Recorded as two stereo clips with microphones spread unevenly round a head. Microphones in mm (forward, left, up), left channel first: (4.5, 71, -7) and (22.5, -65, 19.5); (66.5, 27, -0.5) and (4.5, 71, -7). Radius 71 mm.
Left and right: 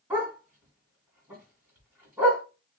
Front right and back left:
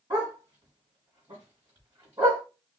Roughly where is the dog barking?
Behind right.